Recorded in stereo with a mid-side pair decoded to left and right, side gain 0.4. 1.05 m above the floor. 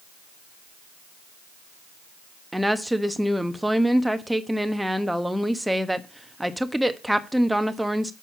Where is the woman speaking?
5° right, 1.2 m.